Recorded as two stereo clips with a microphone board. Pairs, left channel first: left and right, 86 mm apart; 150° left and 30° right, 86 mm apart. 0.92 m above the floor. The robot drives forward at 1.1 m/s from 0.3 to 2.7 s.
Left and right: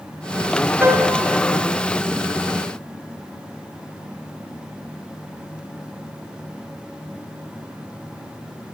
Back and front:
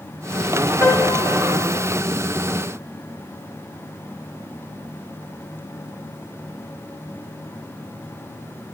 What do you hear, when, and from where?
0.8 s a piano: 155° right, 3 m; by 1.9 s 160° right, 4 m